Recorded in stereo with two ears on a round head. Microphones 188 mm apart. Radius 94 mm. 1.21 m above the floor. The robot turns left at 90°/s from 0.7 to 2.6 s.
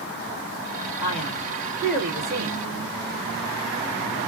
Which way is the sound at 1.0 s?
80° left.